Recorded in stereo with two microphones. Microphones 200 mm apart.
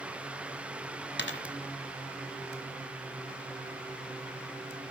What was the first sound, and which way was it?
A dropped coin, 70° left (ahead or behind).